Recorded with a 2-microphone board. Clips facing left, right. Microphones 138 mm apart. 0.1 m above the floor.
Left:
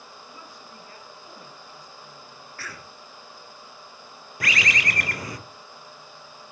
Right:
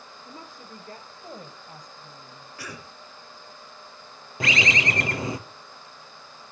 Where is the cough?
15° right (ahead or behind), 1.8 m.